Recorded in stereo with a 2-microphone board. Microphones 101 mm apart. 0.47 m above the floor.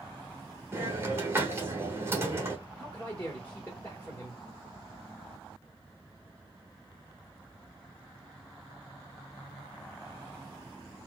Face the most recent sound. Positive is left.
turn(degrees=15)  # may be behind; listen again after turning